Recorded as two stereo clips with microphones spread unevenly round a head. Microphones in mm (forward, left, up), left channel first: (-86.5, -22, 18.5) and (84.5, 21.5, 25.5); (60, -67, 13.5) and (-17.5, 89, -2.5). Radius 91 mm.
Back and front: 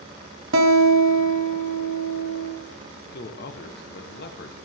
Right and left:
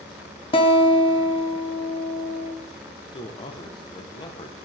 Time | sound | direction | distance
0.5 | a guitar | straight ahead | 1.5 m
3.1 | a man speaking | 130° right | 1.3 m